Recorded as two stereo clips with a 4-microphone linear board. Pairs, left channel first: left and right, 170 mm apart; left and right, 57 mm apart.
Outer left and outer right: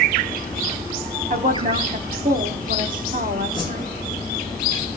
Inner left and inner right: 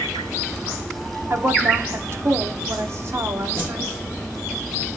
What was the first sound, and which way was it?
A woman speaking, 55° right (ahead or behind).